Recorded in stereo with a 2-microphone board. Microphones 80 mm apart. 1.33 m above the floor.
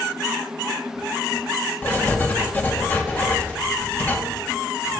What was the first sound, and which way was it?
Writing, 20° left (ahead or behind).